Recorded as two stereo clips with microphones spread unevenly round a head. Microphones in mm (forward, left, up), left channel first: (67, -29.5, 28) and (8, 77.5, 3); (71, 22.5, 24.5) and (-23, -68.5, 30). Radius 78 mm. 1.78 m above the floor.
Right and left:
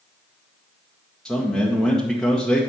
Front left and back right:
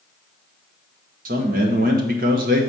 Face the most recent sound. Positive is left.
turn(degrees=-140)